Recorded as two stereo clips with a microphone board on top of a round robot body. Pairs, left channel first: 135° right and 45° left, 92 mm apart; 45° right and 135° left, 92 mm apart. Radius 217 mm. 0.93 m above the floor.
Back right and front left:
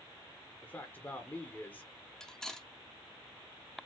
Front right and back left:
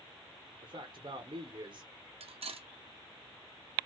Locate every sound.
0.6 s a man speaking: 160° left, 1.3 m
2.2 s cutlery clinking: 140° left, 0.9 m